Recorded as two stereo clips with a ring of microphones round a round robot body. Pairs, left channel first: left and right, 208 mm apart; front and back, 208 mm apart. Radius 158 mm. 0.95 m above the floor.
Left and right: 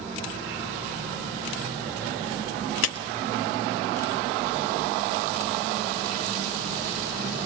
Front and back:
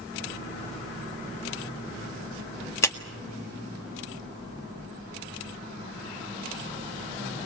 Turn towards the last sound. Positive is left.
turn(degrees=75)